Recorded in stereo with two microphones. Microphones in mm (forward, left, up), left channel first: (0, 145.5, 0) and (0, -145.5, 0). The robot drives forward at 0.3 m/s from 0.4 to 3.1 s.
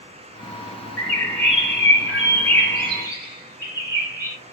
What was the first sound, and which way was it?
A bird, 40° left (ahead or behind).